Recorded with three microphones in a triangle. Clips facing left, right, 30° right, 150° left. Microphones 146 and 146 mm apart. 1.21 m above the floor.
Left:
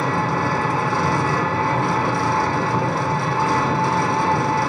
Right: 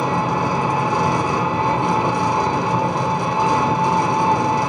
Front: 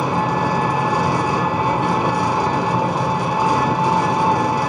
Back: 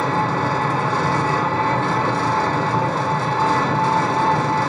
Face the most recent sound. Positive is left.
turn(degrees=-75)